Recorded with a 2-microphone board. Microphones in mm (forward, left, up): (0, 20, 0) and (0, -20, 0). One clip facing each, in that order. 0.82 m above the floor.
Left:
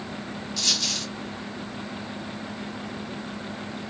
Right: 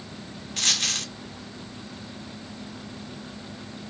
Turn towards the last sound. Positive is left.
turn(degrees=-50)  # may be behind; listen again after turning